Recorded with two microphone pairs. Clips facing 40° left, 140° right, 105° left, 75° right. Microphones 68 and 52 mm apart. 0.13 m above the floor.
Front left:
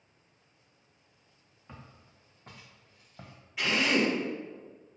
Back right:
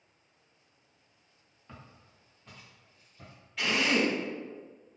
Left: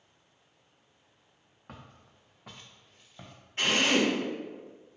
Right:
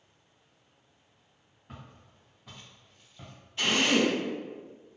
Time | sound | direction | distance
1.7 | footsteps | 120° left | 0.9 m
3.6 | a drill | 120° left | 1.6 m